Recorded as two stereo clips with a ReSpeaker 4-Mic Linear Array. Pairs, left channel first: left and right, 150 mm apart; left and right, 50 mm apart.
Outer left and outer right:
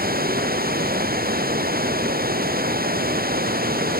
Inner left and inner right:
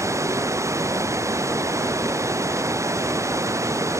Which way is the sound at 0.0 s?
90° right.